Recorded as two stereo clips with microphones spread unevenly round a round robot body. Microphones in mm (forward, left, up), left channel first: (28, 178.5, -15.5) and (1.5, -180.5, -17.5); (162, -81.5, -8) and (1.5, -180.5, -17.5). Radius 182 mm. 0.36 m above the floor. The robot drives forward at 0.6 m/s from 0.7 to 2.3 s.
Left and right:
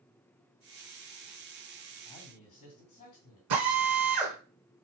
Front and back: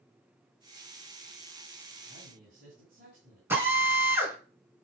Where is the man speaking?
155° left, 2.5 m.